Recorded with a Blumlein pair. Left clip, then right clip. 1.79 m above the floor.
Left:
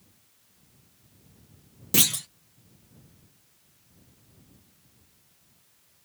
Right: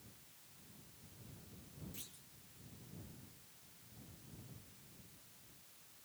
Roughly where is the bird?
I don't hear a bird.